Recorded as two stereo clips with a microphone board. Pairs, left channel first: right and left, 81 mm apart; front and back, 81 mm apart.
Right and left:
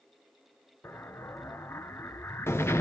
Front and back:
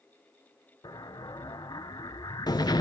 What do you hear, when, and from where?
0.8 s an explosion: 30° right, 1.1 m